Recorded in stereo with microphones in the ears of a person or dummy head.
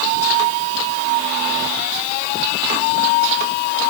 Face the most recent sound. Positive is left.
No sound to turn to.